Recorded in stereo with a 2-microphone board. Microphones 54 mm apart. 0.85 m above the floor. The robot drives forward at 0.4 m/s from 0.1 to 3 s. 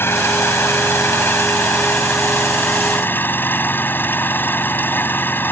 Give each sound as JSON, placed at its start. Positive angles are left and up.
{"t": 0.0, "sound": "an engine running", "side_deg": 50}